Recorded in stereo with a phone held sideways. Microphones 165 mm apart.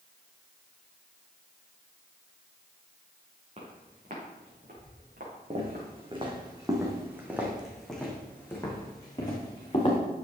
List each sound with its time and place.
3.6 s footsteps: 45° right (ahead or behind), 4 m; by 5.9 s 75° right (ahead or behind), 4.5 m
5.5 s footsteps: 40° right (ahead or behind), 2.5 m; by 10.0 s 30° left (ahead or behind), 3.5 m